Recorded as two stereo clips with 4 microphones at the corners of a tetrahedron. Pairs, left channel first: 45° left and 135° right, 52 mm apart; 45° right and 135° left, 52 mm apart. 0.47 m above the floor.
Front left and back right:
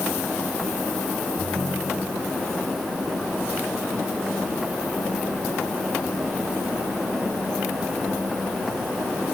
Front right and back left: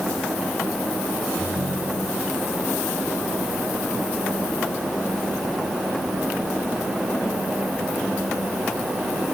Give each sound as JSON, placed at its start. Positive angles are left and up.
{"t": 1.4, "sound": "a ringtone", "azimuth_deg": 155}